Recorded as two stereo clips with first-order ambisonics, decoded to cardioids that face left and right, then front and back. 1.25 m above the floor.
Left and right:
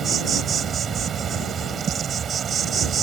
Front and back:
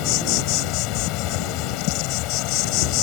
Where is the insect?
25° right.